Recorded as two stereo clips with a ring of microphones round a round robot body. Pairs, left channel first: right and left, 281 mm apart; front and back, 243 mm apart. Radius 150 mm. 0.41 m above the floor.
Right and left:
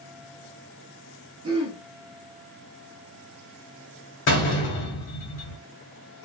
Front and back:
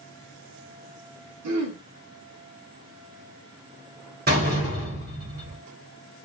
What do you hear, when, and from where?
1.4 s throat clearing: 165° left, 0.7 m
4.3 s a door slam: 135° right, 1.3 m